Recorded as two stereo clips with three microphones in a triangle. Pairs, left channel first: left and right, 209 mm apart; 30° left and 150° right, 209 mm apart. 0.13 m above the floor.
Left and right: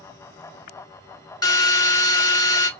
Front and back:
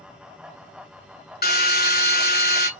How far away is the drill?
About 1.0 m.